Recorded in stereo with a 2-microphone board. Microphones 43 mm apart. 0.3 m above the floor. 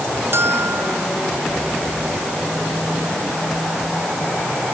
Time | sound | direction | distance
0.3 | a bell | 70° right (ahead or behind) | ?